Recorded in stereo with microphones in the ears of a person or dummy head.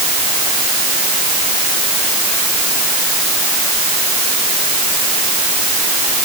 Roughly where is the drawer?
No drawer in this recording.